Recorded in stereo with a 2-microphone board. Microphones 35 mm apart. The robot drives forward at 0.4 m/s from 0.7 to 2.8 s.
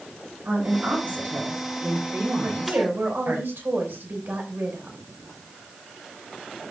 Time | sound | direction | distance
0.5 | a woman speaking | 75° right (ahead or behind) | 8 m
2.4 | a woman speaking | 75° right (ahead or behind) | 5 m